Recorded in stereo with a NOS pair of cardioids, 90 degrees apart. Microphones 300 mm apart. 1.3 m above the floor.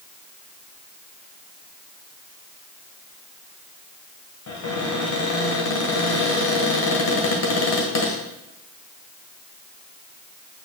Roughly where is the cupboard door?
Ahead left.